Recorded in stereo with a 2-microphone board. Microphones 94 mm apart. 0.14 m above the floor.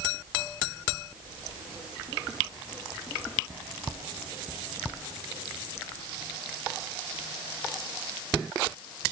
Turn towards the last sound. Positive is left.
No sound to turn to.